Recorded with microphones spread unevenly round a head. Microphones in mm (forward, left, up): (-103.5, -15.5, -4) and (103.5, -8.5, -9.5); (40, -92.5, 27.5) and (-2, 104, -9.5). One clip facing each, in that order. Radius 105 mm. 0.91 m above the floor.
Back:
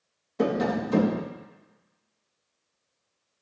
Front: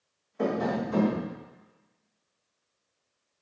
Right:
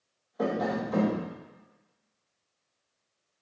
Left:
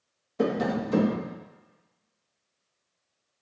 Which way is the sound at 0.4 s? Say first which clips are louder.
Back 3 dB, left 3 dB; 150° left.